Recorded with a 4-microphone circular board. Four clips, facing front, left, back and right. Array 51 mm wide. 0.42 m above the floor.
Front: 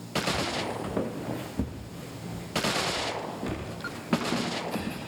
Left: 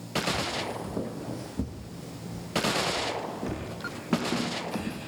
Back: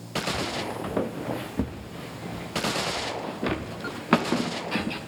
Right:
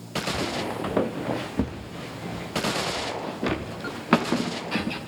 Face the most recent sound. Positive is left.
turn(degrees=-135)